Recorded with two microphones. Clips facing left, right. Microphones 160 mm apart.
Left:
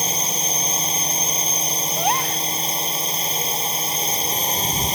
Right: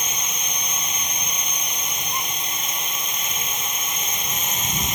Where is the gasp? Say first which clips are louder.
Left 12 dB; 70° left (ahead or behind).